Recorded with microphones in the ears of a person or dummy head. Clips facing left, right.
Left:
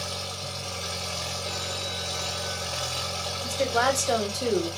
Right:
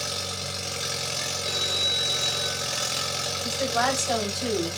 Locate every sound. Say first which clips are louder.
0.0 s an engine running: right 1 dB; 25° right (ahead or behind), 0.7 m
1.4 s a phone ringing: right 1 dB; 35° right (ahead or behind), 1.0 m
3.4 s a woman speaking: left 2 dB; 45° left (ahead or behind), 0.9 m